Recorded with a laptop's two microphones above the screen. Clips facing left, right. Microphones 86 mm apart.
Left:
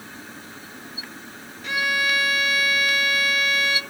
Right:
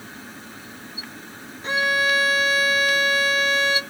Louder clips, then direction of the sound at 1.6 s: Right 3 dB; 30° right (ahead or behind).